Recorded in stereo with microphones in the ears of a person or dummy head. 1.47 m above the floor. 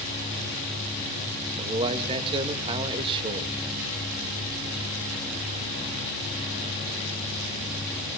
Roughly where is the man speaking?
Right.